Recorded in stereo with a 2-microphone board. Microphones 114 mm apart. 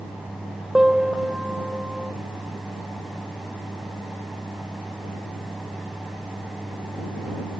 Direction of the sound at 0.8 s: 5° right (ahead or behind).